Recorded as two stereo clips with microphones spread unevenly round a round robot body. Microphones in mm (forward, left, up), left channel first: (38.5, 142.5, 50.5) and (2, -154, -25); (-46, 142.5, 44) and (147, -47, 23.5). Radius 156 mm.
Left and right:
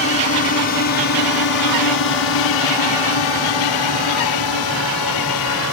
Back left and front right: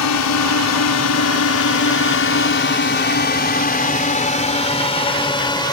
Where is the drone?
135° left; by 5.7 s 60° left.